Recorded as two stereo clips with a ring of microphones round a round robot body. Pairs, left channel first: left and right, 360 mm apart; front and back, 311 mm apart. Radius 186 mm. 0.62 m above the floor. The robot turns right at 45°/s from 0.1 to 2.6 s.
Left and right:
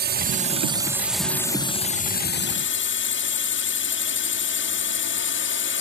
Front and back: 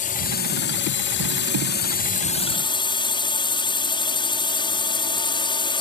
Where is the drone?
50° right; by 5.8 s 65° left.